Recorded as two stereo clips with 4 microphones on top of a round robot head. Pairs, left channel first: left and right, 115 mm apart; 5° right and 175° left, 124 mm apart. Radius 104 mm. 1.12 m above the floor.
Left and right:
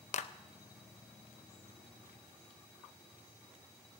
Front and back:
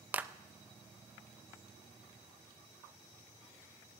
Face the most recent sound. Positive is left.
turn(degrees=100)